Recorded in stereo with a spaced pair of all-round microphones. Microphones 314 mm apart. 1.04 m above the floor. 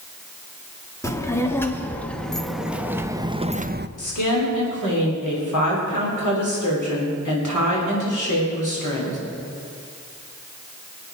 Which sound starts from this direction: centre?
A child speaking, at 1.0 s.